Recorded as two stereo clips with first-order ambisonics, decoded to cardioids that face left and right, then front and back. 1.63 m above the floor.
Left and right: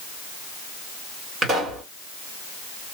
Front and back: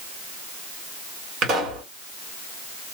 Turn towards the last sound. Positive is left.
turn(degrees=-145)